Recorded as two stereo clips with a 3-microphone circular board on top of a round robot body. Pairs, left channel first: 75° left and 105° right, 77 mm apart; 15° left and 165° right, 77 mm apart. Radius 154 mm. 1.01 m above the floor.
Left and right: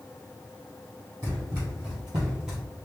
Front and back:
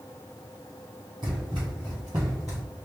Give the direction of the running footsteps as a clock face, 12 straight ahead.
5 o'clock.